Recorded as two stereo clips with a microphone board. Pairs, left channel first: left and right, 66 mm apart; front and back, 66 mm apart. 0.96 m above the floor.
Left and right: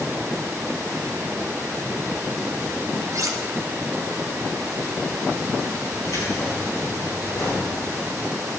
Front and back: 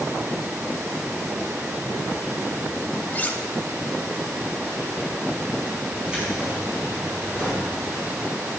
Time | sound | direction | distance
3.1 | cutlery clinking | 60° right | 0.8 m
6.0 | keys jangling | 110° left | 5.5 m